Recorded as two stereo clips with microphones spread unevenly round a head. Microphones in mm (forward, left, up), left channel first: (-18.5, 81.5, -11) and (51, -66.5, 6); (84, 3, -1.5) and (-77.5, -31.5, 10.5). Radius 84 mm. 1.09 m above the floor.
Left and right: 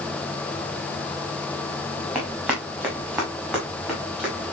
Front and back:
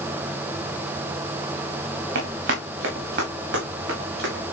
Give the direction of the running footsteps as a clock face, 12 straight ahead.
5 o'clock.